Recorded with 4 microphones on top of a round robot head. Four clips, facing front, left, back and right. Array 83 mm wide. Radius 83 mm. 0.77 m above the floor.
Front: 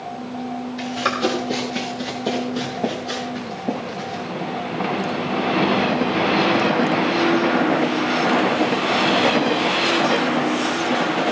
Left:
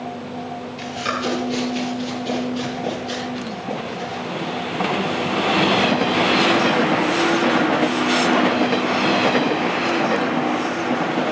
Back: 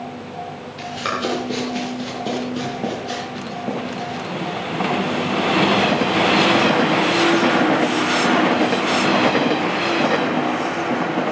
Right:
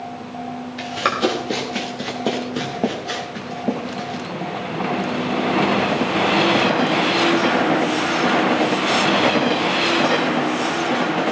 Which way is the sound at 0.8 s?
80° right.